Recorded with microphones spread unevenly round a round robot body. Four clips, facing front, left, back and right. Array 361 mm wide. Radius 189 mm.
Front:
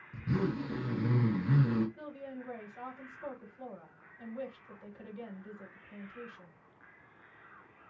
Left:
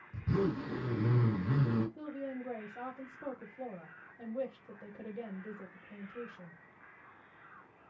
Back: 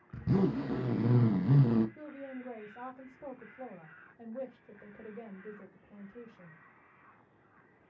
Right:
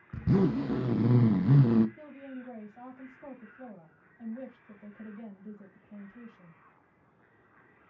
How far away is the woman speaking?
About 1.8 m.